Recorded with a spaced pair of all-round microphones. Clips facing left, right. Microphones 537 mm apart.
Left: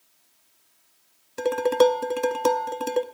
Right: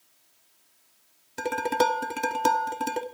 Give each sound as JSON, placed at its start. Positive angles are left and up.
{"t": 1.4, "sound": "dishes clattering", "side_deg": -10, "distance_m": 0.7}